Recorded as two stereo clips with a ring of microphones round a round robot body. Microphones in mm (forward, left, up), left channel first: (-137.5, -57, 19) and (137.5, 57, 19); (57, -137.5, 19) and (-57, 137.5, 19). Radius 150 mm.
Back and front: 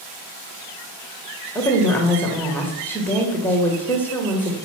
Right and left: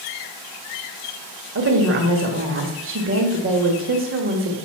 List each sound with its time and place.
1.6 s a woman speaking: 120° left, 1.6 m